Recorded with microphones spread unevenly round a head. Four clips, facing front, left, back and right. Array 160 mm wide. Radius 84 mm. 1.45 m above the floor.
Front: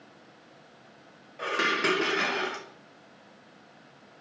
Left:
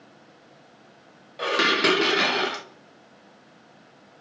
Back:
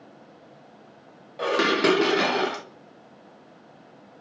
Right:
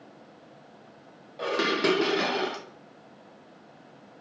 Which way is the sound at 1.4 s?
165° left.